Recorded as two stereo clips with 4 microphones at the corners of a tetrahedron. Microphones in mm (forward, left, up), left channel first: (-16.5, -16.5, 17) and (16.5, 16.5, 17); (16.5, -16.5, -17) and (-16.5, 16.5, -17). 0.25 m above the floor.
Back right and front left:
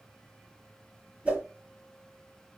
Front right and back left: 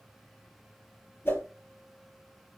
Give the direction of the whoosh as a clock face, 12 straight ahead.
12 o'clock.